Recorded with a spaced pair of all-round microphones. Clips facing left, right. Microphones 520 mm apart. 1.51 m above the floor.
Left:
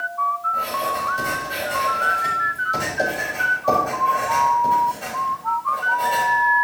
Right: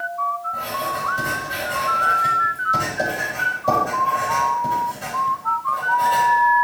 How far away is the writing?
About 3.5 m.